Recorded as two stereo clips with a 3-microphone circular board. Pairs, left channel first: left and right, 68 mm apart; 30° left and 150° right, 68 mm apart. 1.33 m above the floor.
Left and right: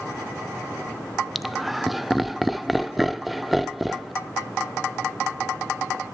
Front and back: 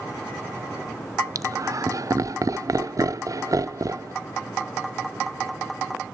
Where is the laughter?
Straight behind, 0.7 m.